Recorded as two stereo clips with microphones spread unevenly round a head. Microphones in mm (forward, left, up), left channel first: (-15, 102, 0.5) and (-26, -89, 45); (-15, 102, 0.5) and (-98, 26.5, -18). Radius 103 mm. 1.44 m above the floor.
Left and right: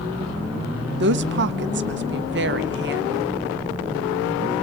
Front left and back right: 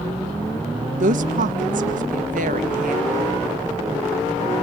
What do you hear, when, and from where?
1.0 s a woman speaking: 130° right, 1.6 m